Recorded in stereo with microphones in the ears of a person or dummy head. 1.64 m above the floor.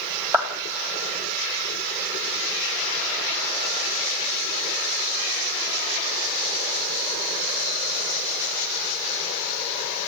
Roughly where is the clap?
Centre.